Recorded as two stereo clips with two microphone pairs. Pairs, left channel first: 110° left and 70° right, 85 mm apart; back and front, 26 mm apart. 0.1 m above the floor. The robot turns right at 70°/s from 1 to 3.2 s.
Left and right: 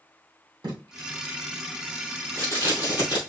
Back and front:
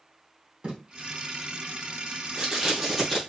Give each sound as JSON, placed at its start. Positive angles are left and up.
{"t": 0.6, "sound": "tape being pulled", "azimuth_deg": -45, "distance_m": 2.5}